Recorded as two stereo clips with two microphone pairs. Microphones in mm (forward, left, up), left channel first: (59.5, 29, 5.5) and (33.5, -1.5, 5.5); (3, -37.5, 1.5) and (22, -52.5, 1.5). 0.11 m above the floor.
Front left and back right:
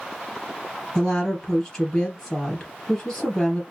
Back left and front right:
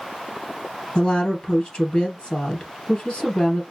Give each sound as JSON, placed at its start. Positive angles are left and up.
{"t": 0.9, "sound": "a woman speaking", "azimuth_deg": 120, "distance_m": 2.5}